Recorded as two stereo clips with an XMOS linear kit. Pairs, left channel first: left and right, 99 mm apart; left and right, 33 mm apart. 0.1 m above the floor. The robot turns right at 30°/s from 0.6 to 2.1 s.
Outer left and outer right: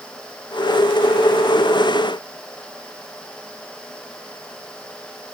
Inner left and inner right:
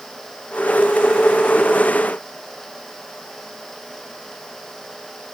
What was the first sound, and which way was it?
Only background noise.